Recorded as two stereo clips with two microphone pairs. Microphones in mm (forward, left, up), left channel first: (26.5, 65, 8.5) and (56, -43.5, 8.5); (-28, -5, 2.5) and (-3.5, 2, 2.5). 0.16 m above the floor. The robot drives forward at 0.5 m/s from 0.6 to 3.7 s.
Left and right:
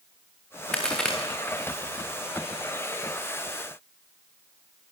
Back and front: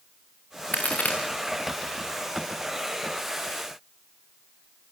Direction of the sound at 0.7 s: 170° right.